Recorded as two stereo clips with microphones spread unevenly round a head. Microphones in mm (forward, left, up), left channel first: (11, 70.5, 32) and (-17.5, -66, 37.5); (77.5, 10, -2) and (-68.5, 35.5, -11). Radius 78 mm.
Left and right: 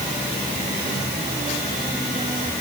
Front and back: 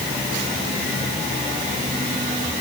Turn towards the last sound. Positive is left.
No sound to turn to.